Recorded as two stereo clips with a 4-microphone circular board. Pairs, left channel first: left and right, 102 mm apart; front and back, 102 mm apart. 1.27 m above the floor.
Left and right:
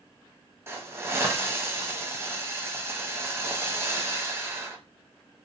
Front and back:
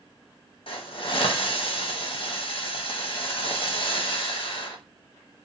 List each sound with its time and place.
0.7 s a hiss: 25° right, 0.6 m